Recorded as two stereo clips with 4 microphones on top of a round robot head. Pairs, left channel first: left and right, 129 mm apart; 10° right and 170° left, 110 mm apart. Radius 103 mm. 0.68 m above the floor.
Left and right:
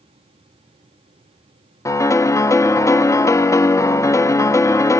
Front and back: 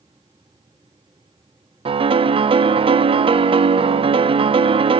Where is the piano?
155° left, 0.6 m.